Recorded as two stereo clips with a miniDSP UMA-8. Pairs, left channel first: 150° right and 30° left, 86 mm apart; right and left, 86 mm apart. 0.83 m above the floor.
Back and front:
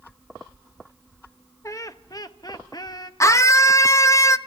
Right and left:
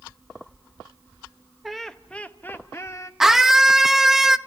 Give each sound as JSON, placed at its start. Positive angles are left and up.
{"t": 1.6, "sound": "laughter", "azimuth_deg": 180, "distance_m": 1.0}
{"t": 3.2, "sound": "a scream", "azimuth_deg": 175, "distance_m": 0.7}